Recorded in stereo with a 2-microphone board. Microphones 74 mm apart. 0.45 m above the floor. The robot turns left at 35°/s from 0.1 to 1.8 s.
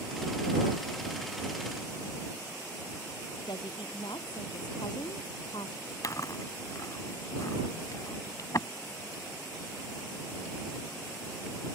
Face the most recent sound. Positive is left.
turn(degrees=55)  # may be behind; listen again after turning